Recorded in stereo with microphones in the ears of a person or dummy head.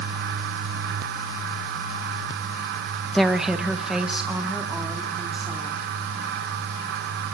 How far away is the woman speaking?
About 0.5 m.